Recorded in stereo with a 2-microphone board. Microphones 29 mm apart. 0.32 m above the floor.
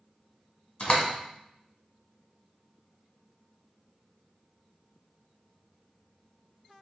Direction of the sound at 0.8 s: 35° left (ahead or behind).